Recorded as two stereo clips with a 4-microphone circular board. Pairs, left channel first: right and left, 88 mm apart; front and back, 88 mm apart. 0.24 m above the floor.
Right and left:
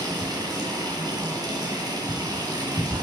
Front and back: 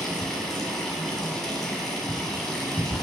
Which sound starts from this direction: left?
Running water, at 0.0 s.